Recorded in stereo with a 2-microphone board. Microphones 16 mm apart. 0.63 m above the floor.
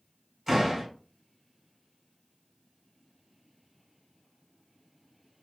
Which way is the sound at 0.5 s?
15° right (ahead or behind).